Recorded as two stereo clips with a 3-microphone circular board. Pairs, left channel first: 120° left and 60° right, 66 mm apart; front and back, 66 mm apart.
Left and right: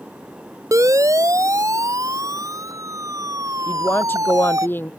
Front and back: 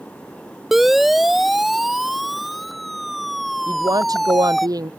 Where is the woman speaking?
175° left.